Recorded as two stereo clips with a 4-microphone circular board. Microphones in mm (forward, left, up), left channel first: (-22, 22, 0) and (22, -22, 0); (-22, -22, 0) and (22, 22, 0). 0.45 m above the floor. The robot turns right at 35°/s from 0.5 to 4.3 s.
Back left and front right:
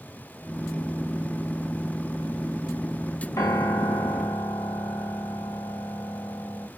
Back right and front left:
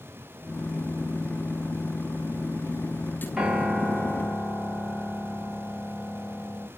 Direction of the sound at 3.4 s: 125° left.